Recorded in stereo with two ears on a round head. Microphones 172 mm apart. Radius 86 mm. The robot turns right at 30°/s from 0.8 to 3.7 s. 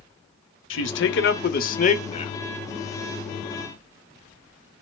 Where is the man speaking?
105° left, 0.9 m; by 2.3 s 150° left, 0.9 m.